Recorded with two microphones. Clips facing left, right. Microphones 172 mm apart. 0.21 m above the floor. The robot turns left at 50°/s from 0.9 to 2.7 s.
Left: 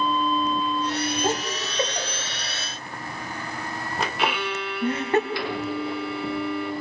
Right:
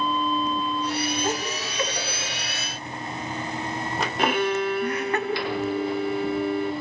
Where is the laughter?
30° left (ahead or behind), 1.3 m; by 5.2 s 25° left (ahead or behind), 1.3 m.